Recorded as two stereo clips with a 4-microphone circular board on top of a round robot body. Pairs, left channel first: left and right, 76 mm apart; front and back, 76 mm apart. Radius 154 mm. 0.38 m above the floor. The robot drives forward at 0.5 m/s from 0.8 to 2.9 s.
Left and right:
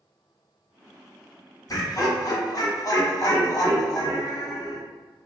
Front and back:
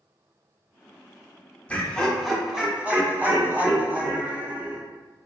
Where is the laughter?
70° left, 1.1 m; by 4.8 s 110° left, 1.1 m.